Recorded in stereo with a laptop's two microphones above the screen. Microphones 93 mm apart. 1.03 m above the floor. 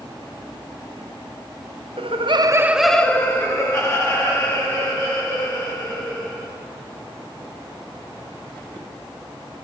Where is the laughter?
80° right, 0.7 m; by 6.5 s 50° left (ahead or behind), 3.5 m.